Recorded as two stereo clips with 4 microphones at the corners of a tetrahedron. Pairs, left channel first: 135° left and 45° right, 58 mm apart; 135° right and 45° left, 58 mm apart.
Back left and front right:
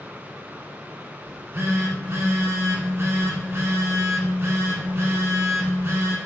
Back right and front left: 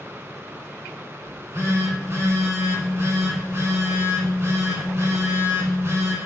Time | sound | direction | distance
1.2 | a phone buzzing | straight ahead | 0.7 m